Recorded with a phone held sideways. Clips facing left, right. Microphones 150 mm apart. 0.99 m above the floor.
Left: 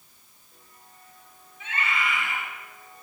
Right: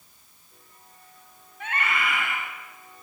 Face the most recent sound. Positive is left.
turn(degrees=-60)  # may be behind; listen again after turning